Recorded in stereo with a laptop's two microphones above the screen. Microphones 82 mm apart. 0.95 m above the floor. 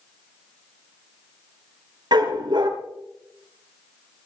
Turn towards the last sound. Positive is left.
turn(degrees=-65)  # may be behind; listen again after turning